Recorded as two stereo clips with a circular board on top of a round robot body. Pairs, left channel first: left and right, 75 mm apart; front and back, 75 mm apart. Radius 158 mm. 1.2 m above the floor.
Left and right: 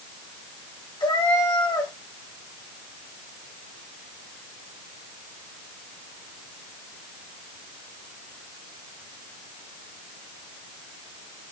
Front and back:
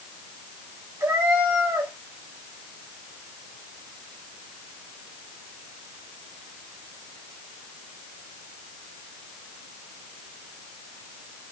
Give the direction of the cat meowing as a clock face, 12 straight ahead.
8 o'clock.